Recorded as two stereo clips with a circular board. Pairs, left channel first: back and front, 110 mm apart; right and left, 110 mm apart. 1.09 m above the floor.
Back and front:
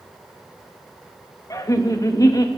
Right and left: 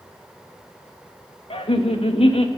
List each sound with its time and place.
1.5 s laughter: 120° right, 1.1 m